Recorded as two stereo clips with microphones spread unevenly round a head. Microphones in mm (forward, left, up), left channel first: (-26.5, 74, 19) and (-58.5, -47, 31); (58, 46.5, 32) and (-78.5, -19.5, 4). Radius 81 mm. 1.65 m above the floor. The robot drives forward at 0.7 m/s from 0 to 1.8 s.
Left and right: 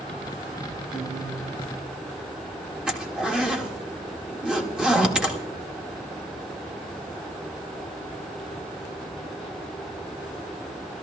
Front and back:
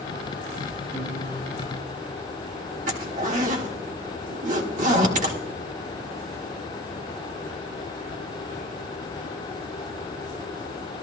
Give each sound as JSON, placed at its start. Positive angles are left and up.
{"t": 0.9, "sound": "a guitar", "azimuth_deg": -100, "distance_m": 6.0}
{"t": 2.9, "sound": "a zipper", "azimuth_deg": 170, "distance_m": 1.6}